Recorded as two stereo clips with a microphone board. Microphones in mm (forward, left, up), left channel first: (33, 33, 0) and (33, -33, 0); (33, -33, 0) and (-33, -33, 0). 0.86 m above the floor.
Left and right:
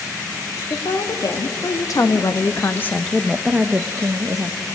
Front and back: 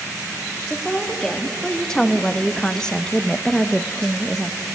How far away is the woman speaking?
About 2.0 m.